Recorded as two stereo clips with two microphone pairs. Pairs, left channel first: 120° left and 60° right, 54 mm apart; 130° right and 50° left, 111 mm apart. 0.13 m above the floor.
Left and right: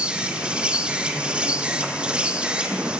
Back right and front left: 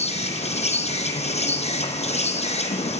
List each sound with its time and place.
0.0 s an insect: 130° right, 1.8 m